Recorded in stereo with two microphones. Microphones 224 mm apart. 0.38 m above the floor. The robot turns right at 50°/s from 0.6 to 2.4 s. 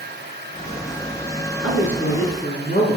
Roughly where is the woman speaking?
Left.